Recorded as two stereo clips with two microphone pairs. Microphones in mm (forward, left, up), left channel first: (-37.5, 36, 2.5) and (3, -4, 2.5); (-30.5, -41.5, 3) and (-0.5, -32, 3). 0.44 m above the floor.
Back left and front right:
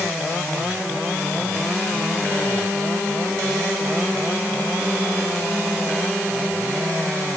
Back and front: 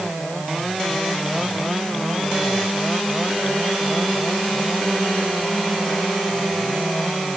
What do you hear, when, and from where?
Only background noise.